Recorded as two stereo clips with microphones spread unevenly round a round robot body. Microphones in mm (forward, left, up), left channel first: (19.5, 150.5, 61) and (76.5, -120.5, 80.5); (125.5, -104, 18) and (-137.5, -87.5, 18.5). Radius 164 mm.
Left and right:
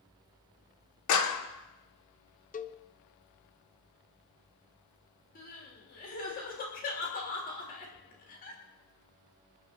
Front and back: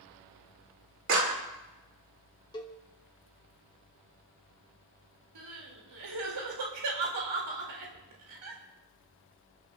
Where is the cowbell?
65° left, 1.0 m.